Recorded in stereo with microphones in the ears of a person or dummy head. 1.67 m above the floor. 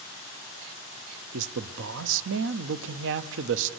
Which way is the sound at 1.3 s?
70° right (ahead or behind).